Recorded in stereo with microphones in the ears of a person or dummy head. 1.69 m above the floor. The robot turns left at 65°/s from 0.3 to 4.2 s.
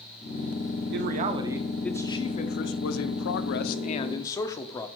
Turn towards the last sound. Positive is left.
turn(degrees=20)